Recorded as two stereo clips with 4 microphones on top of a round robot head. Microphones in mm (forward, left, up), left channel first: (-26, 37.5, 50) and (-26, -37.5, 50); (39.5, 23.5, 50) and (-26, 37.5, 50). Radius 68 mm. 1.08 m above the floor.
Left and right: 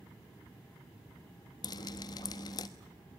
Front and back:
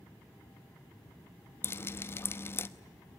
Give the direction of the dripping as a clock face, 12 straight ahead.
11 o'clock.